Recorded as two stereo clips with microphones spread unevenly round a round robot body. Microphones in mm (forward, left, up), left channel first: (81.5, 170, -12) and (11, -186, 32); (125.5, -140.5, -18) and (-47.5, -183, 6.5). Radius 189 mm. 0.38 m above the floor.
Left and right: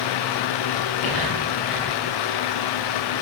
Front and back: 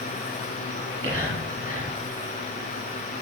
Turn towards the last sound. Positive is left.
turn(degrees=165)